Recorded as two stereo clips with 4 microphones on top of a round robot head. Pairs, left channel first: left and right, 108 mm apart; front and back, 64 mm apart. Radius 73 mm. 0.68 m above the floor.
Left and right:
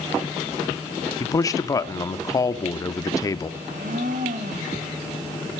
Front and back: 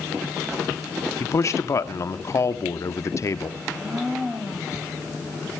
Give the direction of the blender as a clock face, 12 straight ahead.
3 o'clock.